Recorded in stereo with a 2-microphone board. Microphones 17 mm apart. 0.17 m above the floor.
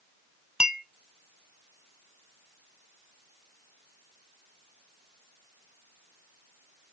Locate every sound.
0.6 s a clink: 35° right (ahead or behind), 0.9 m